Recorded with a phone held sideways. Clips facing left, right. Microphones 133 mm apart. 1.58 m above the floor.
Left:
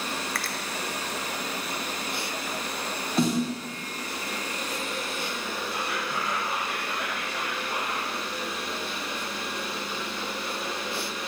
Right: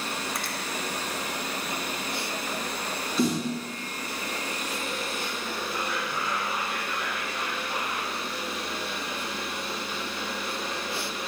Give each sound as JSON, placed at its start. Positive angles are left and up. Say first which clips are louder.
{"t": 0.3, "sound": "a finger snap", "louder": "even", "side_deg": -20, "distance_m": 0.6}
{"t": 3.2, "sound": "a snare drum", "louder": "left 1 dB", "side_deg": 60, "distance_m": 2.5}
{"t": 5.7, "sound": "whispering", "louder": "even", "side_deg": 70, "distance_m": 1.9}